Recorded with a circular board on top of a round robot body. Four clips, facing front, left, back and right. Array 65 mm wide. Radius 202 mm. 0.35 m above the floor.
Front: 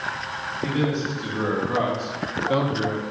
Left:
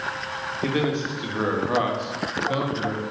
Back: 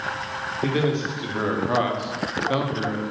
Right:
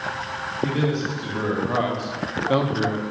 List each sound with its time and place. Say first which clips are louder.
0.6 s a man speaking: right 1 dB, back 1 dB; 130° left, 1.5 m; by 3.0 s 95° right, 1.2 m